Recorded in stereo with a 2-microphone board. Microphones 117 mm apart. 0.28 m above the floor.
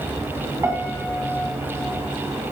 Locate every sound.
0.6 s a piano: 20° right (ahead or behind), 2.5 m